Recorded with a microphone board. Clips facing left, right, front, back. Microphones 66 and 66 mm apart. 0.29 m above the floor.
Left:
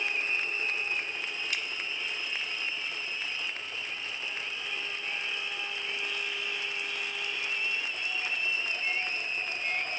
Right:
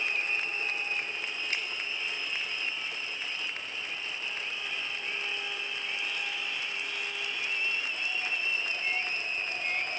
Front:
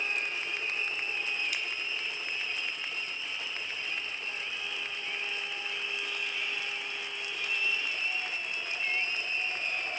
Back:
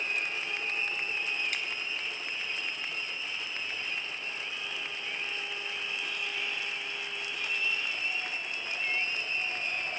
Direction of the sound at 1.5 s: 145° right.